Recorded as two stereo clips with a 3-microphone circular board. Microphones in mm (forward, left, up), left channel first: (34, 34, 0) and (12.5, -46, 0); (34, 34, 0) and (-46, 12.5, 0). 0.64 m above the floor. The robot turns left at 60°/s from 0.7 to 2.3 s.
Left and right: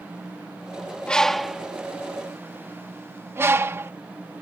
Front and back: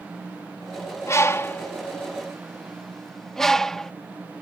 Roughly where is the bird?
Ahead.